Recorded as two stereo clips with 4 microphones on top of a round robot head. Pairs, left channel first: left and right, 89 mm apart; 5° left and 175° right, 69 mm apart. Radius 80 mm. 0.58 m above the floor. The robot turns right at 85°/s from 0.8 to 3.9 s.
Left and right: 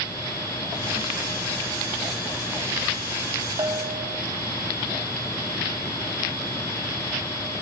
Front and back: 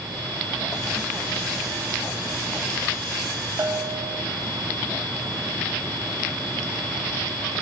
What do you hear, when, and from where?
3.6 s a bell: 145° right, 1.4 m; by 4.2 s 115° right, 1.4 m